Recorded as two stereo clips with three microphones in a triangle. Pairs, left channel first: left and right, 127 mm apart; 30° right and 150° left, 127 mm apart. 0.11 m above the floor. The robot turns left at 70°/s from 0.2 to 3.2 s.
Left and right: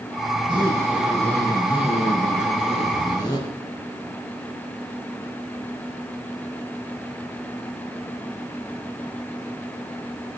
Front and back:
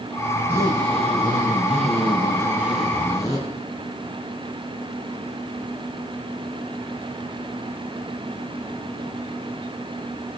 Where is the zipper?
125° right, 6.5 m; by 3.4 s 35° left, 6.5 m.